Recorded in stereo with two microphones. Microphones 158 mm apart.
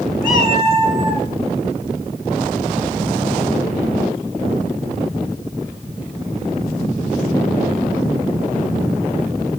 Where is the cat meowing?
65° left (ahead or behind), 2.5 m.